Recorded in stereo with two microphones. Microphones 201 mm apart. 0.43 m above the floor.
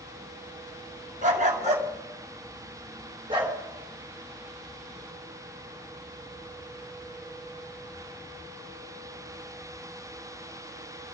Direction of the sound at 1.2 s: 40° right (ahead or behind).